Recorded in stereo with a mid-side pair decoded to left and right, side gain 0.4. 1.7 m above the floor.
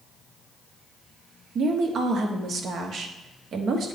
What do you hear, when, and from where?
1.6 s a woman speaking: 65° right, 1.0 m